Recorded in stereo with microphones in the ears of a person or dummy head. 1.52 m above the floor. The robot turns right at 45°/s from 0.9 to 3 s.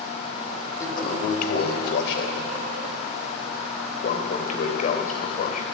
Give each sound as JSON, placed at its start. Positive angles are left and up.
{"t": 0.8, "sound": "a toilet flushing", "side_deg": 30, "distance_m": 2.5}